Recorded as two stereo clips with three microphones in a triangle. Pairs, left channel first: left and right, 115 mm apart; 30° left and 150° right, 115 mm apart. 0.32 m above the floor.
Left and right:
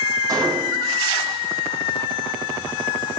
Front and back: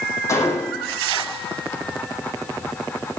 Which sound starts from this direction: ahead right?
A gunshot, at 0.3 s.